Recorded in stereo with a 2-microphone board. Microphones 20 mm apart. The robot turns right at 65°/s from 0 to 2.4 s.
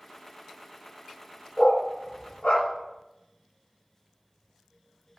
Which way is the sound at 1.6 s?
35° left (ahead or behind).